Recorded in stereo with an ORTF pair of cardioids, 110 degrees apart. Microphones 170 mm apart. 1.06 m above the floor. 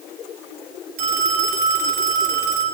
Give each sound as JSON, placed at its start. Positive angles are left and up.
{"t": 1.0, "sound": "a phone ringing", "azimuth_deg": -65, "distance_m": 5.0}